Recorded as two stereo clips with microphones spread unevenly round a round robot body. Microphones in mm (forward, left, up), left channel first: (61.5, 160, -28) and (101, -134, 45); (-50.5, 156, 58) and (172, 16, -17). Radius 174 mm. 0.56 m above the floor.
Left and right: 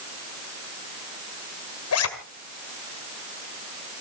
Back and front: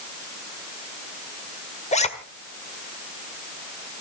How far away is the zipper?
About 1.9 m.